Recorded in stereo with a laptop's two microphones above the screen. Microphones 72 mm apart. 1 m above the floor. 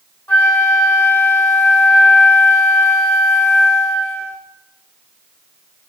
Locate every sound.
0.3 s a flute: 25° left (ahead or behind), 1.1 m